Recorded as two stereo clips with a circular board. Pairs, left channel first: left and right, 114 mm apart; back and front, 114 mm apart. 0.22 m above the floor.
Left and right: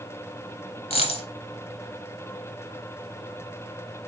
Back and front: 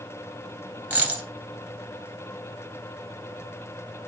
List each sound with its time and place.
0.9 s a dropped coin: 70° left, 1.0 m